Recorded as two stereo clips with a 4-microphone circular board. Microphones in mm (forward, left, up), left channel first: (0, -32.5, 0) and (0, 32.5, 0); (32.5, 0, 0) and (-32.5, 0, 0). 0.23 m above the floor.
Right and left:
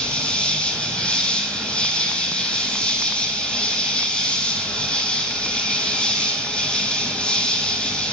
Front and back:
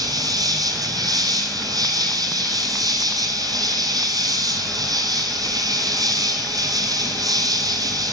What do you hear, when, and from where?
0.0 s an insect: 165° right, 1.8 m